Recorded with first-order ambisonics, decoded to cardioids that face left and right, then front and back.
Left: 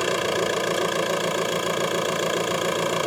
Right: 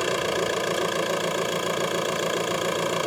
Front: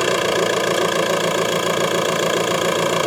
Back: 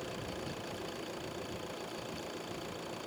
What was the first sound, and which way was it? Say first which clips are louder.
An engine running: left 2 dB, front 24 dB; 5° left.